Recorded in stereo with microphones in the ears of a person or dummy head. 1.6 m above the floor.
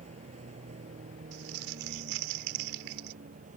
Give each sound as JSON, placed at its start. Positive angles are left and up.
{"t": 0.0, "sound": "a vehicle", "side_deg": -40}
{"t": 1.3, "sound": "crumpling", "side_deg": -70}